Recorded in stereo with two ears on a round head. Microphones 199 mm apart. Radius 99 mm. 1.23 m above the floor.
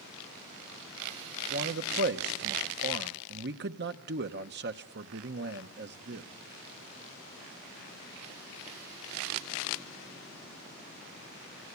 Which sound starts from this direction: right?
A man speaking, at 1.5 s.